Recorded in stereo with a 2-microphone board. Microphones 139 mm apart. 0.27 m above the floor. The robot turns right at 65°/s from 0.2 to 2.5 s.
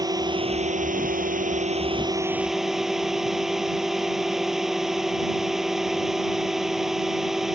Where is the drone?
150° right; by 7.5 s straight ahead.